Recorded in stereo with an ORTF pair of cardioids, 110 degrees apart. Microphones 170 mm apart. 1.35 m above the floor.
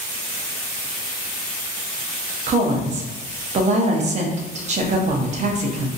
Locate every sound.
2.5 s a woman speaking: 45° right, 0.8 m